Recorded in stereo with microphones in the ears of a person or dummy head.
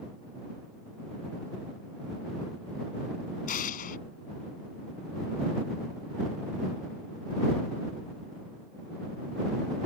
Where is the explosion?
40° left (ahead or behind).